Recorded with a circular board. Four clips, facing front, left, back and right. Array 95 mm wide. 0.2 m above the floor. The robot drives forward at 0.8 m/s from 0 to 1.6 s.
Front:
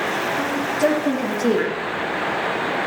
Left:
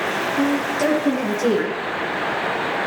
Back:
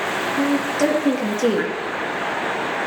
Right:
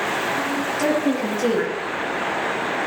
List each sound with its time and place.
0.3 s a woman speaking: 175° left, 5 m; by 1.7 s straight behind, 6 m